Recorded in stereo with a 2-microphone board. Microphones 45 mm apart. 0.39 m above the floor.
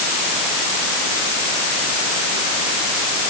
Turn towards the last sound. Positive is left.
No sound to turn to.